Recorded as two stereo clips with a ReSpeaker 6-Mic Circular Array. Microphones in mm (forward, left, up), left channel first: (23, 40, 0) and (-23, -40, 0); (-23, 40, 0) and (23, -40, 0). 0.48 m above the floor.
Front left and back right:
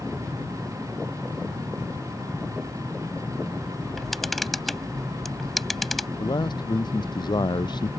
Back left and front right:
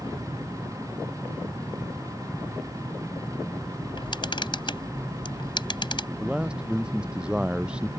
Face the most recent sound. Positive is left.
turn(degrees=20)